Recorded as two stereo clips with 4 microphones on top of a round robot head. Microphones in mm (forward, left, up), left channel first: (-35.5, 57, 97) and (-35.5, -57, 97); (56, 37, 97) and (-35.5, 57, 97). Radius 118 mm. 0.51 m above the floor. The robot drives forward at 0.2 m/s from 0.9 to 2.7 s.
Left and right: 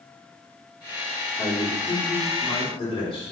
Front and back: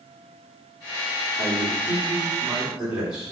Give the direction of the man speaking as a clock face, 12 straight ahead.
9 o'clock.